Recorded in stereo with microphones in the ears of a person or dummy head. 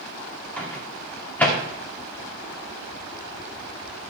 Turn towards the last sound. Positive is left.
turn(degrees=10)  # may be behind; listen again after turning